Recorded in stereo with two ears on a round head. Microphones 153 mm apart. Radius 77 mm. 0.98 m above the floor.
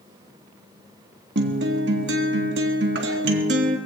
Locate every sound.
1.4 s a guitar: 75° right (ahead or behind), 1.6 m